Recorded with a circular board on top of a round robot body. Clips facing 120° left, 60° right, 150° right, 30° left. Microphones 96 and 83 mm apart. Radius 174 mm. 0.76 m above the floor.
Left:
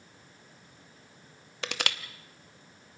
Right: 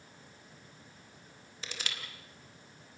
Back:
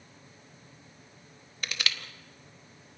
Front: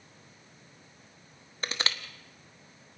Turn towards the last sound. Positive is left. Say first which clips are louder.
# left 9 dB, front 2 dB
turn(degrees=90)